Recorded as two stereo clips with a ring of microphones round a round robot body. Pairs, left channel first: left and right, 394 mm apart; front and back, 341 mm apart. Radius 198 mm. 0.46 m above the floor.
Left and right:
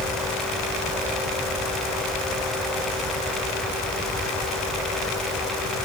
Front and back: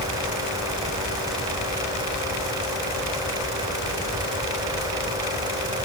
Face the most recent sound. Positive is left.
No sound to turn to.